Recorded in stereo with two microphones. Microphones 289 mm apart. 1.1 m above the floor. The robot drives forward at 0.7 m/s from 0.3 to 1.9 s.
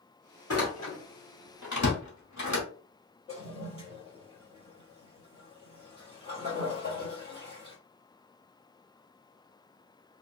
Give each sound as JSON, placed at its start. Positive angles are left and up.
{"t": 0.5, "sound": "a door slam", "side_deg": 55, "distance_m": 1.1}
{"t": 3.3, "sound": "a toilet flushing", "side_deg": 20, "distance_m": 1.6}